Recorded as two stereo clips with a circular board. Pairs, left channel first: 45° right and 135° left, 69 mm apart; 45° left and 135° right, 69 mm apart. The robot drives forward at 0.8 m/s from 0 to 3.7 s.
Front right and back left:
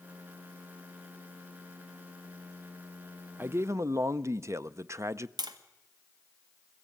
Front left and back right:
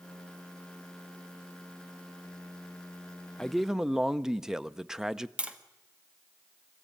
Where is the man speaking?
115° left, 0.5 m; by 5.3 s 145° left, 0.6 m.